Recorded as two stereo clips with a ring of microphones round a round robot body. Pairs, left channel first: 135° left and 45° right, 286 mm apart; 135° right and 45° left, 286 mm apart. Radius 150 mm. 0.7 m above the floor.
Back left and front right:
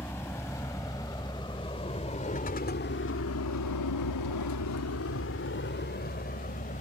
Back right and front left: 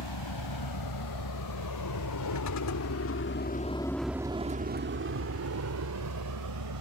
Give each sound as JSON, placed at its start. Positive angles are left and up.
{"t": 0.0, "sound": "a vehicle", "azimuth_deg": -145}